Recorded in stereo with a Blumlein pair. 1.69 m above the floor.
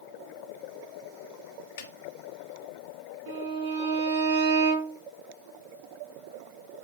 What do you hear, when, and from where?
1.8 s a snare drum: 55° left, 1.3 m
3.3 s a violin: 55° right, 3 m